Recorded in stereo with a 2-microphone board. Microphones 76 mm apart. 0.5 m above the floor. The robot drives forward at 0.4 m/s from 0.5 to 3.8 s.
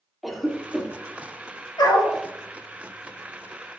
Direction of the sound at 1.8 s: 70° left (ahead or behind).